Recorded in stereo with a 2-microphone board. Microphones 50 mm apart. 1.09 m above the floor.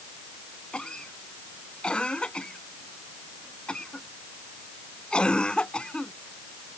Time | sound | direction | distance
0.7 | a cough | 20° left (ahead or behind) | ?